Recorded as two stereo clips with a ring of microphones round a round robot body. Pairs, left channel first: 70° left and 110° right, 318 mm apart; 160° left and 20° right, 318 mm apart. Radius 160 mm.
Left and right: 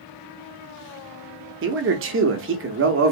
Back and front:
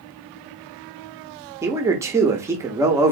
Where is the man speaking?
100° right, 0.7 m.